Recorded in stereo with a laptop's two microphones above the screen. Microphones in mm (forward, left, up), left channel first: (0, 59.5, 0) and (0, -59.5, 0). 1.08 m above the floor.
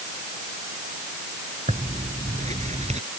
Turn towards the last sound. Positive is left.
turn(degrees=-75)  # may be behind; listen again after turning